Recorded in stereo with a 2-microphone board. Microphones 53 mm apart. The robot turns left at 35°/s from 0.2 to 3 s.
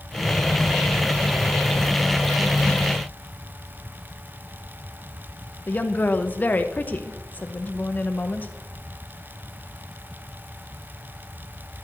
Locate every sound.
5.7 s a woman speaking: 30° left (ahead or behind), 0.9 m